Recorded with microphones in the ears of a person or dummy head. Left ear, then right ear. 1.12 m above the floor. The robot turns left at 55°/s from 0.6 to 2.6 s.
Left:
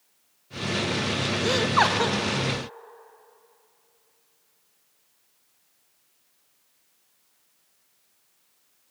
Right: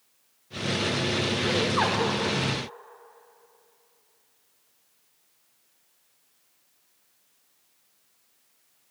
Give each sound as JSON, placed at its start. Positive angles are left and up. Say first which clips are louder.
{"t": 1.4, "sound": "laughter", "louder": "left 5 dB", "azimuth_deg": 70, "distance_m": 0.7}